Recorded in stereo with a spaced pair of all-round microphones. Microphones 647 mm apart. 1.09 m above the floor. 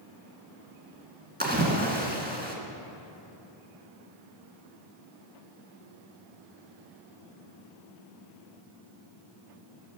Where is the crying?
I don't hear crying.